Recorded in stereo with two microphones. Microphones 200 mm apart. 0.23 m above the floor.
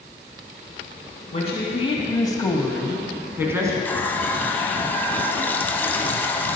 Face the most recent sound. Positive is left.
turn(degrees=10)  # may be behind; listen again after turning